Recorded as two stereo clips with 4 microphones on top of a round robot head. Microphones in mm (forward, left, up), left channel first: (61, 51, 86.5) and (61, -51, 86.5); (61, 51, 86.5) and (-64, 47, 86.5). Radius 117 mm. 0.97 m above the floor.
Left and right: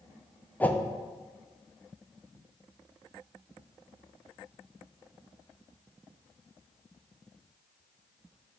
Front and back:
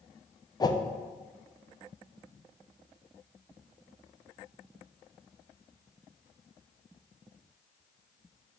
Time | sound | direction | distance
0.6 | a whoosh | 25° left | 0.8 m